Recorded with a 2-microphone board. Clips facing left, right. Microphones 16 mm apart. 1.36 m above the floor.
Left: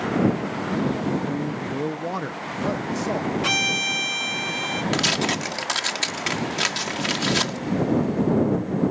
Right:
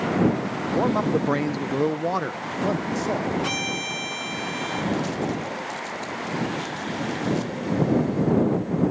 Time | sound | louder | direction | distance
0.7 | a man speaking | right 4 dB | 80° right | ?
3.4 | a violin | left 5 dB | 20° left (ahead or behind) | ?
4.9 | tearing paper | left 4 dB | 85° left | ?